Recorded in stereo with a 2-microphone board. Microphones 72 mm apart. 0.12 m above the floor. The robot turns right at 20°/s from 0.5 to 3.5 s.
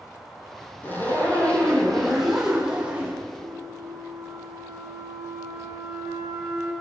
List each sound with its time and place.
0.8 s a zipper: 150° left, 3.5 m; by 3.2 s 160° right, 3.5 m
3.4 s a flute: 75° right (ahead or behind), 4.5 m